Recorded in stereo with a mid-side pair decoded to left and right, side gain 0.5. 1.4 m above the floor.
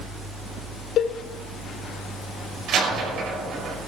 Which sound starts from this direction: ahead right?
A door slam, at 2.7 s.